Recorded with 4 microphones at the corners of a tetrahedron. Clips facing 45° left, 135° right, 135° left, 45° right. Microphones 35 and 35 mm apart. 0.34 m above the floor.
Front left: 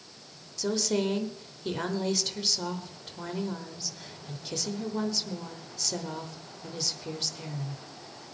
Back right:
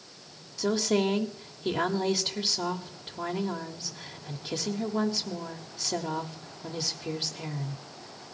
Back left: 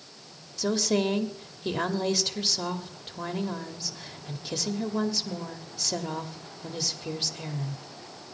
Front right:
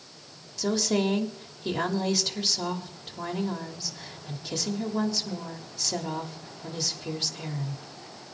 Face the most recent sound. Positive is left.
turn(degrees=-160)